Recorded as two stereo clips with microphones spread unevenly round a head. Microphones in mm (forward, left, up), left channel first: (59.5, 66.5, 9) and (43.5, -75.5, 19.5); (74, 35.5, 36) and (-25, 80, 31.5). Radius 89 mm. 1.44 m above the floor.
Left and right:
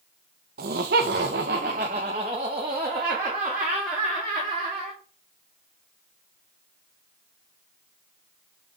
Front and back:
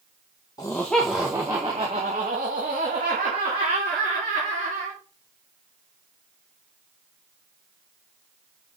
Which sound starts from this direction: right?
Laughter, at 0.6 s.